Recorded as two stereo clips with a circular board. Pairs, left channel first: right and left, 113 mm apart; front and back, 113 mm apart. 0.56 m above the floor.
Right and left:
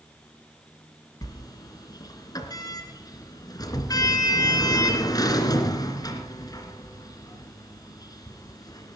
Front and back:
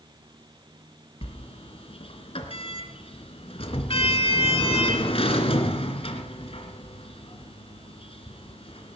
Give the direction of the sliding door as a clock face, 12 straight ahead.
1 o'clock.